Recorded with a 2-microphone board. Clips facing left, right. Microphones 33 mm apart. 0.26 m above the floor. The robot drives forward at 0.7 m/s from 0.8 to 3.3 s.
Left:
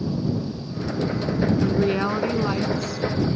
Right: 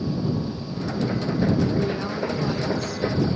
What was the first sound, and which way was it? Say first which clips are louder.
A woman speaking: left 3 dB; 45° left (ahead or behind).